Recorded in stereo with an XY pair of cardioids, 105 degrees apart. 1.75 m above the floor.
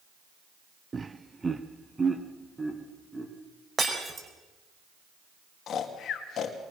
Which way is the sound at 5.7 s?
65° left.